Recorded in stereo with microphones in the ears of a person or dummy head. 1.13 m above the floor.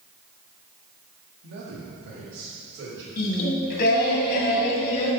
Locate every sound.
1.4 s a man speaking: 65° right (ahead or behind), 1.6 m; by 3.1 s 60° right (ahead or behind), 3.5 m
3.2 s singing: 50° left (ahead or behind), 1.7 m